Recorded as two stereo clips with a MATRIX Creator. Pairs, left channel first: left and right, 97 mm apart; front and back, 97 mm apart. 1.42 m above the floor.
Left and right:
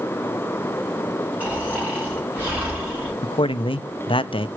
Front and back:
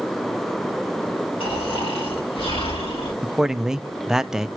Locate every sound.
1.4 s snoring: 15° right, 7 m
3.2 s a man speaking: 95° left, 0.6 m